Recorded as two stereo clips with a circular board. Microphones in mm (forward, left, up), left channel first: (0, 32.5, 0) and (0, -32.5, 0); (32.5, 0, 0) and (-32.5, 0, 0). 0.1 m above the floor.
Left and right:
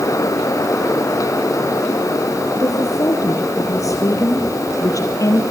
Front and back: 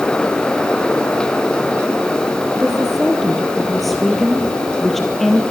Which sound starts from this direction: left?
A woman speaking, at 2.6 s.